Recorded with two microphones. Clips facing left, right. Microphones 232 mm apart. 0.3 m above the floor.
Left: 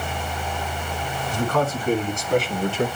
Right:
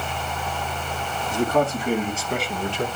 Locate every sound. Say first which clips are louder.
1.3 s a man speaking: right 2 dB; 20° right (ahead or behind), 3.5 m; by 2.9 s 10° left (ahead or behind), 2.5 m